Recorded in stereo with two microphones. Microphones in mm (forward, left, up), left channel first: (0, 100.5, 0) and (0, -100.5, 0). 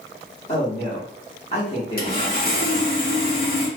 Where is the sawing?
50° left (ahead or behind), 1.0 m.